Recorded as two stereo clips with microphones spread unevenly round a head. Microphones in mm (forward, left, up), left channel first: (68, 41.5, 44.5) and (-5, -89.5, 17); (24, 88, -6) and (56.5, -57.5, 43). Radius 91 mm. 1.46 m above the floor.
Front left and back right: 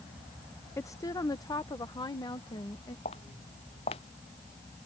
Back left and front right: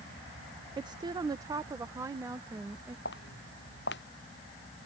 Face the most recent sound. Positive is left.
turn(degrees=120)